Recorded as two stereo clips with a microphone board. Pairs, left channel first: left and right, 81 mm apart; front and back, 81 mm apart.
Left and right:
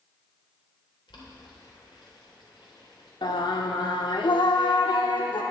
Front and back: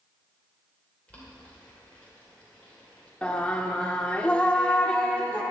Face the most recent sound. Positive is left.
turn(degrees=75)